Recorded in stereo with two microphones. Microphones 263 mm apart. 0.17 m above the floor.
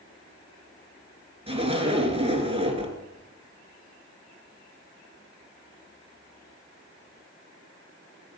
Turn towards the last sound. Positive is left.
turn(degrees=-20)  # may be behind; listen again after turning